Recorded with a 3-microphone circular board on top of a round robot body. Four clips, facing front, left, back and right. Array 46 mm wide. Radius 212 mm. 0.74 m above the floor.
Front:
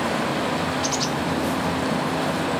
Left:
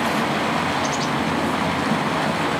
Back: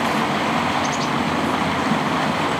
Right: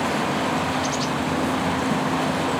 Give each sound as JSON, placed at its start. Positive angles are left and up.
{"t": 0.0, "sound": "running water", "azimuth_deg": 155, "distance_m": 5.0}